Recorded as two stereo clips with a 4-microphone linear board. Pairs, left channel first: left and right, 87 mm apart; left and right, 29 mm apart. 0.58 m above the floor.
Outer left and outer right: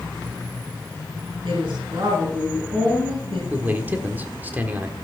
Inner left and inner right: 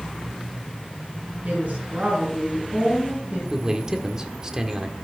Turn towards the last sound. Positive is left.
turn(degrees=-20)  # may be behind; listen again after turning